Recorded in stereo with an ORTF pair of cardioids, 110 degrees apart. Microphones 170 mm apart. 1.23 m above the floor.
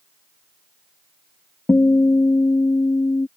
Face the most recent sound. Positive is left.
turn(degrees=15)